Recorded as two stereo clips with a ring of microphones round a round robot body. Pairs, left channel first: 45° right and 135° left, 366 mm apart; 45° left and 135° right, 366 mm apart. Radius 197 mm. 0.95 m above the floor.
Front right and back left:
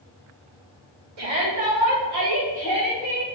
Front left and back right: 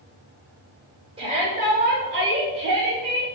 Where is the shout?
150° left, 3.5 m; by 3.2 s straight behind, 3.5 m.